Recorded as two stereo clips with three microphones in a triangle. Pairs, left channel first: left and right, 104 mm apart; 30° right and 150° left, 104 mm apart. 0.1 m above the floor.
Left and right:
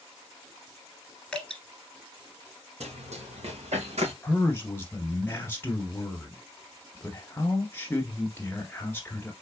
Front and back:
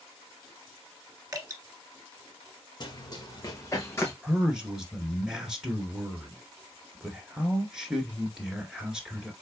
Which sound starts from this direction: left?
A man speaking, at 4.2 s.